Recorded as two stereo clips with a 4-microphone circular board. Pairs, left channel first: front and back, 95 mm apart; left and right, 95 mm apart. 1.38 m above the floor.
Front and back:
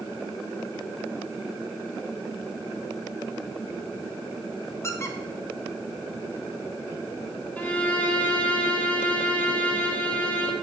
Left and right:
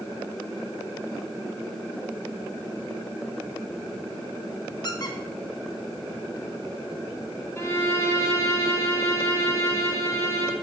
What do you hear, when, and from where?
4.8 s a squeak: 55° left, 0.8 m
7.6 s a violin: 60° left, 1.2 m